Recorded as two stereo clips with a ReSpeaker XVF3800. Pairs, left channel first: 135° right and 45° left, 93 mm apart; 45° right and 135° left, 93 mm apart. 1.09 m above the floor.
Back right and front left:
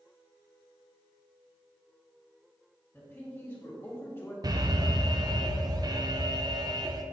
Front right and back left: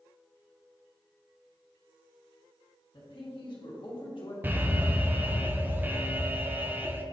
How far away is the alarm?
About 0.5 m.